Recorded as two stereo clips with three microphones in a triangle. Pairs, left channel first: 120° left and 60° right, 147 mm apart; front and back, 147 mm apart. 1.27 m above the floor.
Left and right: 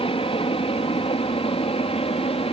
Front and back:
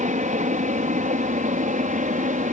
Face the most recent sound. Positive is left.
turn(degrees=165)